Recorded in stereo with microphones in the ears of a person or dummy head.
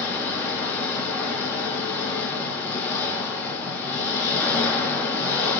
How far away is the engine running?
About 0.7 m.